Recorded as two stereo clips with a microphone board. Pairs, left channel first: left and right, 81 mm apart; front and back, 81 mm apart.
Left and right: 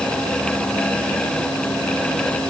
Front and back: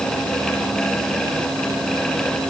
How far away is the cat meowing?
No cat meowing in this recording.